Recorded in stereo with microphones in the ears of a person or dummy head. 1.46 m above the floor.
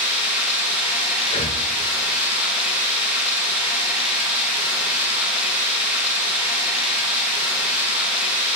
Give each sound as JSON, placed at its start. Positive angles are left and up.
{"t": 0.0, "sound": "running water", "side_deg": -5, "distance_m": 6.5}
{"t": 1.2, "sound": "breathing", "side_deg": 30, "distance_m": 1.1}